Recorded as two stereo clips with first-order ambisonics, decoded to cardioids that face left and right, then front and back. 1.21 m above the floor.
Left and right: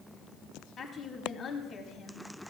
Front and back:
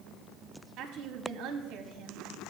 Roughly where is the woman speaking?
Behind left.